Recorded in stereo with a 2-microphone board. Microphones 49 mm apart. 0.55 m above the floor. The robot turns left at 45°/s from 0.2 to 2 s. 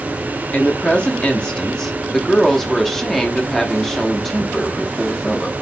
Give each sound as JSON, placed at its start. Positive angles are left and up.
{"t": 0.5, "sound": "a woman speaking", "side_deg": 25, "distance_m": 0.7}